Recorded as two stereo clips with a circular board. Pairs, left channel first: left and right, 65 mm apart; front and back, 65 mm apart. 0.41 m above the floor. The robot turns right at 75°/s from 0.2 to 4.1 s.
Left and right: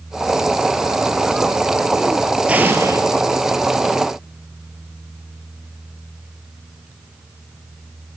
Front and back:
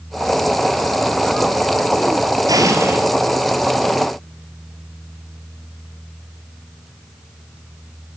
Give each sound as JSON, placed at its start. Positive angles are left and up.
{"t": 2.5, "sound": "an explosion", "azimuth_deg": -160, "distance_m": 2.0}